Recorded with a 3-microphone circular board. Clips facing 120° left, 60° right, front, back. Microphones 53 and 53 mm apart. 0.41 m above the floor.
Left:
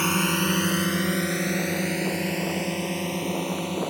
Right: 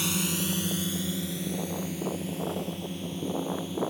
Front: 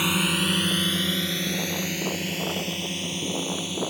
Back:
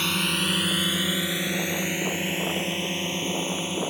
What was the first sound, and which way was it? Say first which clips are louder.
A drone: left 7 dB, front 2 dB; 80° left.